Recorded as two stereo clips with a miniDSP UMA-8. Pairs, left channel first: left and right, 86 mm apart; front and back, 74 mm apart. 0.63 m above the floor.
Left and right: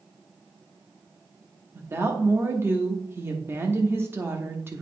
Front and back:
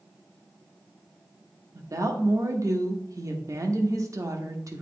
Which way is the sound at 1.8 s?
145° right.